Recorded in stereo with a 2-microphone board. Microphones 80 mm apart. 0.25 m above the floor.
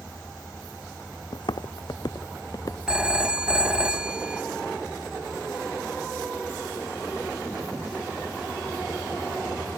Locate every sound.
1.3 s footsteps: 75° left (ahead or behind); by 3.4 s 40° left (ahead or behind)
2.9 s a phone ringing: 15° right (ahead or behind)